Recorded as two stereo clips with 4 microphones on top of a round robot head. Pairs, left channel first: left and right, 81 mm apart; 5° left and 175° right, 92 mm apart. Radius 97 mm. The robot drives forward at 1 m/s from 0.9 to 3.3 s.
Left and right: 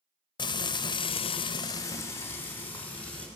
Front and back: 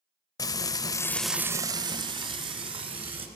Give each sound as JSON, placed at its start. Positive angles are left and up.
{"t": 0.4, "sound": "frying", "azimuth_deg": 60, "distance_m": 0.6}